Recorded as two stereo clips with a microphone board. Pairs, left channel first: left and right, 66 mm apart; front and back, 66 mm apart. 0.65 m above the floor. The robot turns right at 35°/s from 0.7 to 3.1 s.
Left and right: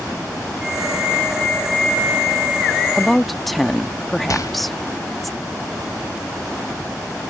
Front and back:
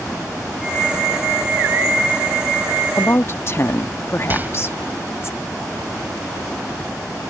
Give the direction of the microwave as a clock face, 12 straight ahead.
8 o'clock.